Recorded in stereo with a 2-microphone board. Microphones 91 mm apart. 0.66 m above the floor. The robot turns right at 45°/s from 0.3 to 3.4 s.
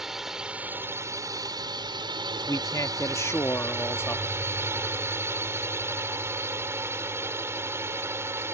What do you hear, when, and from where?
0.0 s a drone: 175° right; by 8.6 s 35° right
2.3 s a man speaking: 85° left; by 4.2 s 135° left